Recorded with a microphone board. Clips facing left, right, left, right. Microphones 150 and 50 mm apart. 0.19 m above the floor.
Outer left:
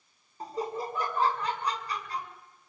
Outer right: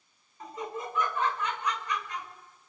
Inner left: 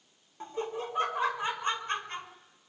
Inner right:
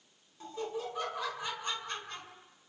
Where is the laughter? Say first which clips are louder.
Outer left 4 dB, inner left 3 dB; 35° left (ahead or behind), 2.5 m.